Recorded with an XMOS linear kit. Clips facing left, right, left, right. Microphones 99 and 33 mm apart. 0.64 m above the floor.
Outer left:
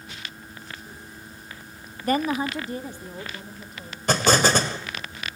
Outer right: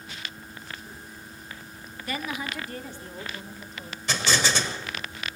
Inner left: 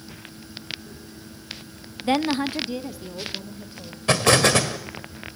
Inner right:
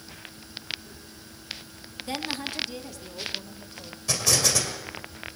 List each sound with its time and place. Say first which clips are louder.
2.0 s a woman speaking: outer left 9 dB, inner left 10 dB; 40° left (ahead or behind), 0.7 m; by 4.0 s 5° left (ahead or behind), 2.5 m
4.1 s an explosion: outer left 7 dB, inner left 8 dB; 50° left (ahead or behind), 1.9 m